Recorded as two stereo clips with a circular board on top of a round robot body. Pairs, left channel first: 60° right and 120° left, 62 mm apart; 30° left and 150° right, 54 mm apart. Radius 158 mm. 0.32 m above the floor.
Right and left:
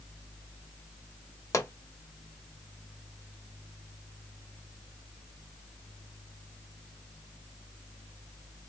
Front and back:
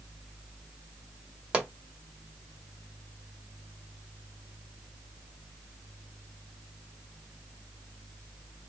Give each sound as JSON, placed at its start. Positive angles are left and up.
{"t": 1.5, "sound": "a pop", "azimuth_deg": -85, "distance_m": 1.8}